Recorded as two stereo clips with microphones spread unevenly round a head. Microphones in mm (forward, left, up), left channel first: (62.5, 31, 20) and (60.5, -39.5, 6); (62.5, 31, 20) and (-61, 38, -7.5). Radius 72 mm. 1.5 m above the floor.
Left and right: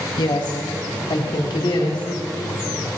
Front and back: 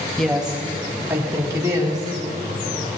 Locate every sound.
0.2 s a woman speaking: 80° left, 1.4 m; by 3.0 s 120° left, 4.5 m